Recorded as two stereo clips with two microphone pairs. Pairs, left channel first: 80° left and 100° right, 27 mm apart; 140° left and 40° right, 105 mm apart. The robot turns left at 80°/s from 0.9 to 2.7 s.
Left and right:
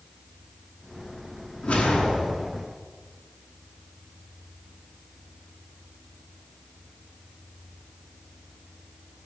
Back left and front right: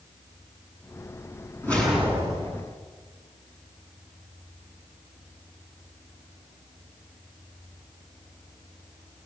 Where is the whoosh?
70° left, 6.5 m; by 2.6 s 10° right, 6.5 m.